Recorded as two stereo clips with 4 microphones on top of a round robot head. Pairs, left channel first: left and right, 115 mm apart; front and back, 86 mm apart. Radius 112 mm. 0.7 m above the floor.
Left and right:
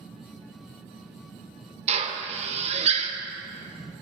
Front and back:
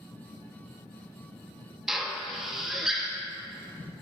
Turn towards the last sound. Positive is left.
turn(degrees=-95)